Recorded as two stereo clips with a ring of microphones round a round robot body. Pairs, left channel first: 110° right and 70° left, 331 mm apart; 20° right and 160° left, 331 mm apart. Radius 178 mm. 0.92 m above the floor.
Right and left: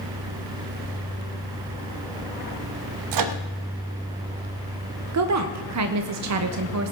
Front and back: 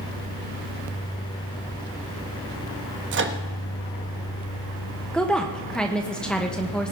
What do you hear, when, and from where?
3.1 s a microwave: 100° left, 0.8 m
5.1 s a woman speaking: 65° left, 0.9 m